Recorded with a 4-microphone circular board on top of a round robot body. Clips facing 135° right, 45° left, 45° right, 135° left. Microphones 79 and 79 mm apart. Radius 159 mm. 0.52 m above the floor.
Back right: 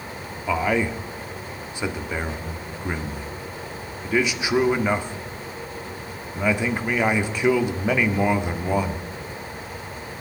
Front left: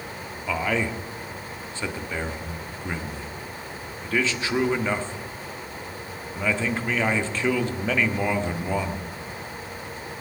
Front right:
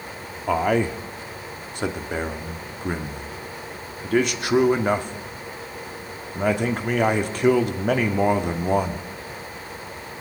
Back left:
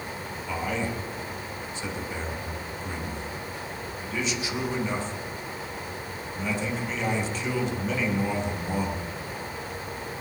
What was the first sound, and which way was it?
A man speaking, 60° right.